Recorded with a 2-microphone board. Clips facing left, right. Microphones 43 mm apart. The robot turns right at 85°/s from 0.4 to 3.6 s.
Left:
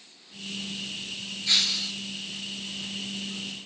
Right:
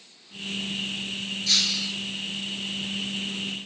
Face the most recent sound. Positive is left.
turn(degrees=-20)